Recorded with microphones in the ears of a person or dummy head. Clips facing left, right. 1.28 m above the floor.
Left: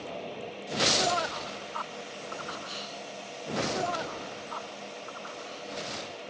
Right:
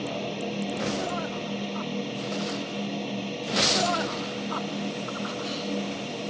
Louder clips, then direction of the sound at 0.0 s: Right 7 dB; 60° right (ahead or behind).